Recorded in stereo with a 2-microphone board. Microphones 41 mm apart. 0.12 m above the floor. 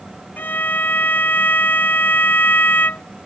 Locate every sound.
0.4 s a violin: 55° left (ahead or behind)